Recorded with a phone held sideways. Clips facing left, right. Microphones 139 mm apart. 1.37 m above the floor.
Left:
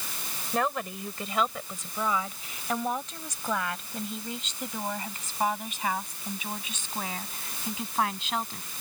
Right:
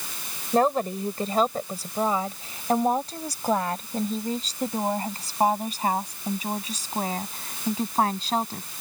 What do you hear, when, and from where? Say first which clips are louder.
0.5 s a woman speaking: right 8 dB; 35° right (ahead or behind); by 8.7 s 40° right (ahead or behind)